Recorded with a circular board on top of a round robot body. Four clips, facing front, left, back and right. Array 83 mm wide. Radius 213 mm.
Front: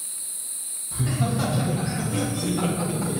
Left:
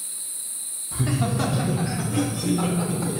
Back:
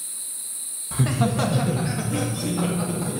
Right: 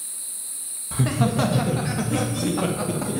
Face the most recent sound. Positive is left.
turn(degrees=-90)